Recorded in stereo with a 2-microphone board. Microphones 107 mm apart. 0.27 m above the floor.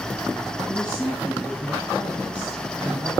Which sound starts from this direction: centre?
A man speaking, at 0.7 s.